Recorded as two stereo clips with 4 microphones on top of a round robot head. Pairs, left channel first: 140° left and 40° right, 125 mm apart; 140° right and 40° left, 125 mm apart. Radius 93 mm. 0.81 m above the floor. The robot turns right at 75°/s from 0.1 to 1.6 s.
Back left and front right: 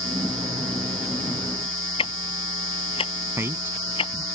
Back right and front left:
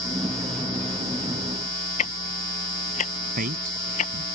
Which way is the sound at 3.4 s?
30° left.